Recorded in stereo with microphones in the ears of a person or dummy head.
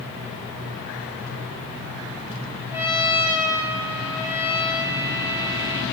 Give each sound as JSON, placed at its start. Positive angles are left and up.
{"t": 2.7, "sound": "a trumpet", "side_deg": -15, "distance_m": 1.8}